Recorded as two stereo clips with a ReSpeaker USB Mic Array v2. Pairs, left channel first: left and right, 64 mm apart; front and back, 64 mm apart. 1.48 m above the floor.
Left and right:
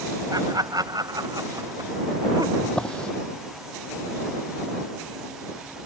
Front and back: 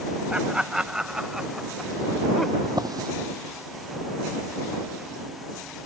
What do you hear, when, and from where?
0.3 s laughter: 105° right; by 2.5 s 85° right
2.6 s a drawer: 165° left